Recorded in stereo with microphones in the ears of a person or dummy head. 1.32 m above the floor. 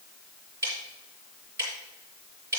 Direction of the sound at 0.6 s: 20° right (ahead or behind).